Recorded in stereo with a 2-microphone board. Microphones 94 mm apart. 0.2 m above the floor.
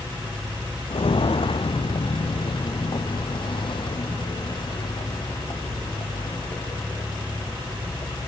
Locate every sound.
0.9 s footsteps: 70° left (ahead or behind), 0.5 m; by 8.3 s 55° left (ahead or behind), 4.5 m